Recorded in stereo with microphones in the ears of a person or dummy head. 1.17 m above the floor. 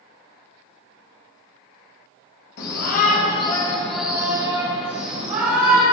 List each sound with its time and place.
2.6 s a shout: 55° left (ahead or behind), 1.3 m; by 5.8 s 45° right (ahead or behind), 2 m